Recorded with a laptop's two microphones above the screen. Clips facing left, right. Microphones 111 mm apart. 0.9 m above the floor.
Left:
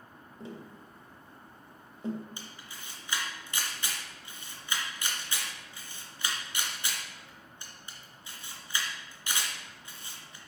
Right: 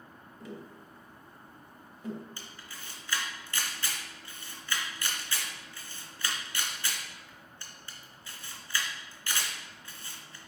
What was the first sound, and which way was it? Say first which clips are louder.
Tapping: even; 25° left (ahead or behind).